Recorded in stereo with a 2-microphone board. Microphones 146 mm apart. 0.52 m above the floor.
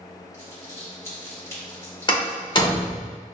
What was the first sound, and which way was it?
Crumpling, 20° left (ahead or behind).